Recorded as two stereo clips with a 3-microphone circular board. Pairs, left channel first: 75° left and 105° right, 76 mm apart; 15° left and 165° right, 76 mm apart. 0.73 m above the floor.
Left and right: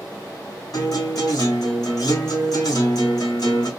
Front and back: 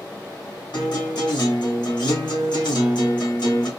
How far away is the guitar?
About 3.5 m.